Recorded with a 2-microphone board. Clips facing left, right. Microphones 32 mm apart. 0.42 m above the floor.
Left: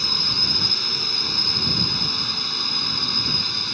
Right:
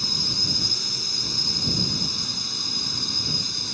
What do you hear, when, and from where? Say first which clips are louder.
0.0 s a drone: left 3 dB; 30° left (ahead or behind)